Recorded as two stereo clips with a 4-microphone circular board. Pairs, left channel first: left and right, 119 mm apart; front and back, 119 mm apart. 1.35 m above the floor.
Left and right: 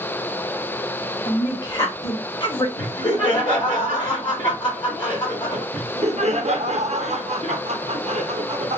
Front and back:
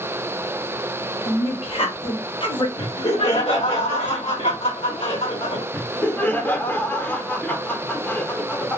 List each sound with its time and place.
1.2 s a woman speaking: 35° left, 1.4 m; by 2.7 s 40° left, 0.7 m
2.8 s laughter: 40° left, 1.4 m
5.7 s laughter: 75° right, 0.8 m